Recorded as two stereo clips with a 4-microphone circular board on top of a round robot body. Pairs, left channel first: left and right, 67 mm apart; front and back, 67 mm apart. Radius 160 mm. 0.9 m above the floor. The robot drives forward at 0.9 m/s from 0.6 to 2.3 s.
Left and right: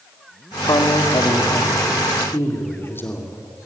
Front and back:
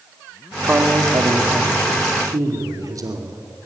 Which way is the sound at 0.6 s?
115° left.